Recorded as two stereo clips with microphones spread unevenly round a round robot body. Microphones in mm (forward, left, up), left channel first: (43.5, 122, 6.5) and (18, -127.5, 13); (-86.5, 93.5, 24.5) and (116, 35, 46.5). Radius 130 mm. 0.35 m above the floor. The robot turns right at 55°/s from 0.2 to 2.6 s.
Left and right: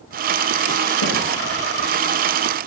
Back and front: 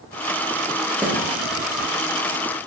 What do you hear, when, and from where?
1.0 s a snare drum: 70° left, 5.5 m; by 1.2 s 80° left, 5.5 m